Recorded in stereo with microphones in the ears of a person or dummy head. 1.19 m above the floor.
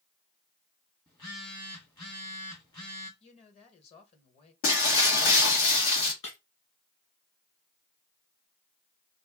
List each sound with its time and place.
1.1 s a phone buzzing: 20° left (ahead or behind), 1.4 m
3.2 s a woman speaking: 40° left (ahead or behind), 1.4 m
4.6 s breaking glass: 60° left (ahead or behind), 1.5 m
6.2 s breaking glass: 30° left (ahead or behind), 2.5 m